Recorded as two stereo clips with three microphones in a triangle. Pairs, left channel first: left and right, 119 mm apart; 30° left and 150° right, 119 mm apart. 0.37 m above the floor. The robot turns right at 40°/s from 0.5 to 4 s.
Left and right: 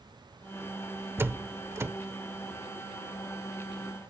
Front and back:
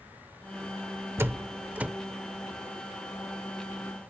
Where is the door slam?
120° right; by 1.9 s 90° right.